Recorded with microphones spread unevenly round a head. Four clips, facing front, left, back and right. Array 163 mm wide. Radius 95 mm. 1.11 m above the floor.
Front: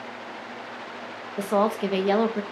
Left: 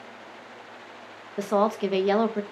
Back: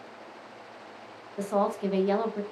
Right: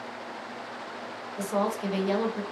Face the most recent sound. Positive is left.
turn(degrees=35)